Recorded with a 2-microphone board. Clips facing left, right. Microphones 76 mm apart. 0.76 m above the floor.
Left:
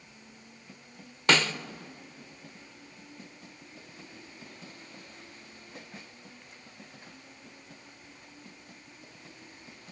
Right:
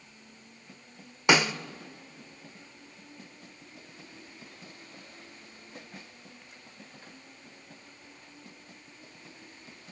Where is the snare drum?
15° right (ahead or behind), 0.6 m.